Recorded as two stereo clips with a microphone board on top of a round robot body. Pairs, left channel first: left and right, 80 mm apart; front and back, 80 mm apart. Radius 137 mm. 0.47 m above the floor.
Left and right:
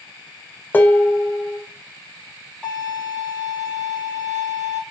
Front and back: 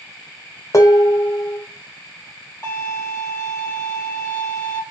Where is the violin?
10° left, 1.3 m.